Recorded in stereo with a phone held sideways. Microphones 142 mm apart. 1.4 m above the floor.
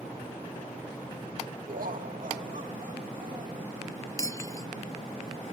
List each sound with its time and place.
1.7 s laughter: 80° right; by 3.7 s 55° right (ahead or behind)
4.2 s breaking glass: 25° left (ahead or behind)